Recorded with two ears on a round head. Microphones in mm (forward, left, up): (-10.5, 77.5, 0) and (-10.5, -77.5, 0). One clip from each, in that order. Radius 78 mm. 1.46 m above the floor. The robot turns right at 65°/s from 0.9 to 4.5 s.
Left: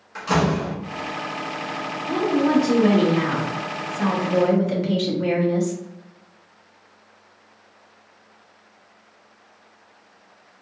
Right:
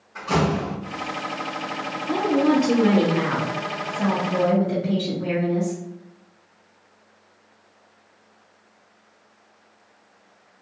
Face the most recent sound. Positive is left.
turn(degrees=70)